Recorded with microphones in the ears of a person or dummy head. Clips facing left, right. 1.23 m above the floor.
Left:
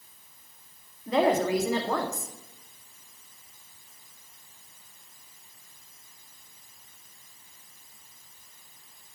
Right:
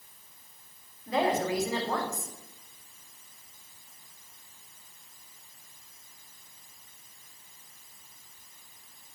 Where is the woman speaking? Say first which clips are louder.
Left 4 dB; 60° left (ahead or behind), 2 m.